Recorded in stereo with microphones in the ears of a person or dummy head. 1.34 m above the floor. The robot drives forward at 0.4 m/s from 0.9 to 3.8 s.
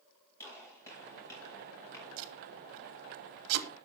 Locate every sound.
0.4 s a gunshot: 20° left (ahead or behind), 9 m
2.2 s tape being pulled: 70° right (ahead or behind), 3 m; by 3.7 s 80° right, 2.5 m